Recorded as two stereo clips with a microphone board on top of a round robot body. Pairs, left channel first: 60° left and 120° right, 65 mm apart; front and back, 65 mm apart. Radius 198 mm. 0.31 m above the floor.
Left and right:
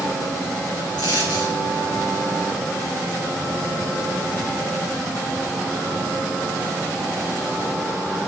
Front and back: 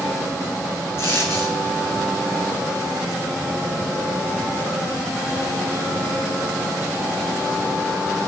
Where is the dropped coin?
55° left, 1.8 m.